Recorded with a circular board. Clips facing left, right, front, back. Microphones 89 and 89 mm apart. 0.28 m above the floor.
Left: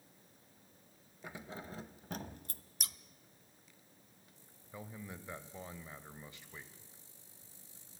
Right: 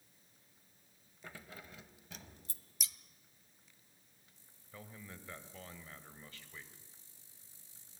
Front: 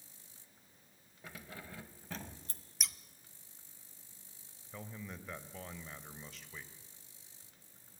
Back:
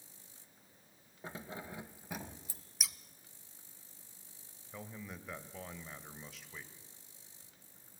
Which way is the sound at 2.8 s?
95° left.